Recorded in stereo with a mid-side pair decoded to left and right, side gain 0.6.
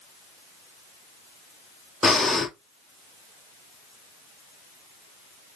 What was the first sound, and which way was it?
Breathing, 10° left.